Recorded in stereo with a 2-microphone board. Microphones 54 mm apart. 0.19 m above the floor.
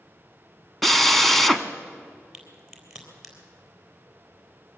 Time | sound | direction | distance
0.8 | a drill | centre (ahead or behind) | 0.8 m
2.3 | a crack | 10° right (ahead or behind) | 3.5 m